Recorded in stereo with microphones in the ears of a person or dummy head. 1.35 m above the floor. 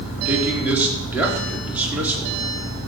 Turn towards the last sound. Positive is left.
turn(degrees=-10)  # may be behind; listen again after turning